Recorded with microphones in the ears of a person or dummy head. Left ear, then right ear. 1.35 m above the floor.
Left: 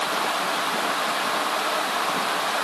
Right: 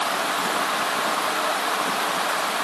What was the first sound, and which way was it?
Only background noise.